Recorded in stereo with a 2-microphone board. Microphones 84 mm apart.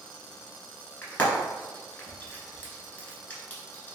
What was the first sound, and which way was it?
Frying, 20° left (ahead or behind).